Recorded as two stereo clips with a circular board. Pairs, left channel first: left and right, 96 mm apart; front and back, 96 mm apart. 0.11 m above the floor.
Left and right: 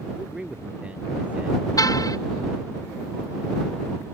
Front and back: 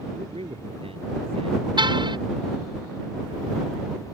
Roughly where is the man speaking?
Behind.